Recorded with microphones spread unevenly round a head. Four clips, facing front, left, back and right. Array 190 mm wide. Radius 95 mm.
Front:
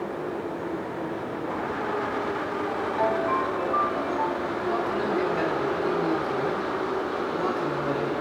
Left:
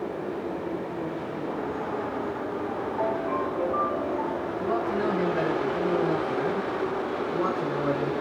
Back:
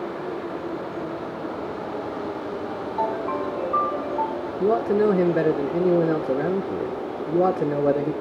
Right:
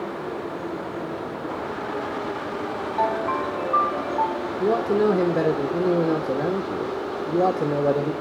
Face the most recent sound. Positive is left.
turn(degrees=-140)